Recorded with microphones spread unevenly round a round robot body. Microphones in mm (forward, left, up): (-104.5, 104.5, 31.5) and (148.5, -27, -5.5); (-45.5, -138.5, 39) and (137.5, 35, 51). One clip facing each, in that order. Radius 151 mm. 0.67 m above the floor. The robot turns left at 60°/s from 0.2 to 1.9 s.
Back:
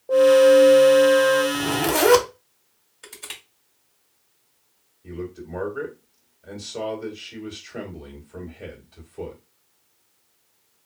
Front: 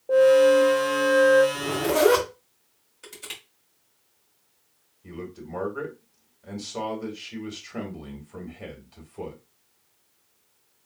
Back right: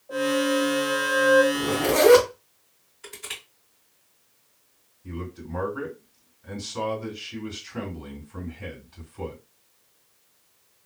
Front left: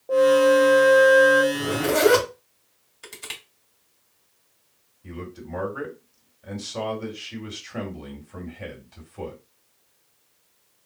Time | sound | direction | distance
0.1 | a flute | 70° left | 0.7 m
1.5 | a zipper | 130° left | 0.9 m
3.0 | crushing | 65° left | 1.8 m
5.0 | a man speaking | 50° left | 2 m